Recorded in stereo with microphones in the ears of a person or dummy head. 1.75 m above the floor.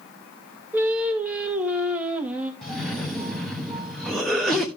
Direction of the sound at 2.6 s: Centre (ahead or behind).